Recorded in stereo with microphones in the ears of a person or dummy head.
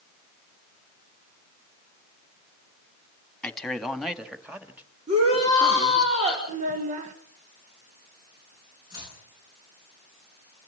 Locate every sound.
3.4 s a man speaking: 5° left (ahead or behind), 2.5 m; by 6.1 s 20° right (ahead or behind), 3 m
5.1 s a shout: 35° right (ahead or behind), 5.5 m
6.5 s a child speaking: 40° right (ahead or behind), 1.5 m
8.9 s chopping: 20° right (ahead or behind), 9.5 m